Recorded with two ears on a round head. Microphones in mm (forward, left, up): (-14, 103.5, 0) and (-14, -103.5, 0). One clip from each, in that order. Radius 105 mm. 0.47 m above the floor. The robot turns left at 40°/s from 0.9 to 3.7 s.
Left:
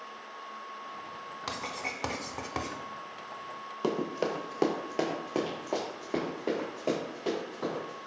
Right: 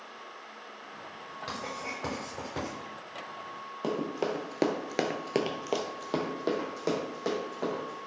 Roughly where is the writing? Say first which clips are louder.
Left 1 dB; left.